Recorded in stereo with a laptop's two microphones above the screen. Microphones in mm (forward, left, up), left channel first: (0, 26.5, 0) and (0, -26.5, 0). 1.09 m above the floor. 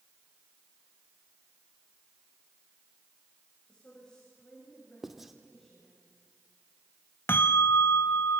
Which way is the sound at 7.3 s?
45° left (ahead or behind).